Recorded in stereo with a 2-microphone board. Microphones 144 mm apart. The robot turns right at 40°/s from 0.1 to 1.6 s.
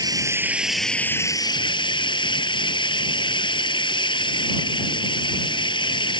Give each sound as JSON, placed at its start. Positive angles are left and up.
{"t": 0.0, "sound": "running water", "azimuth_deg": -25}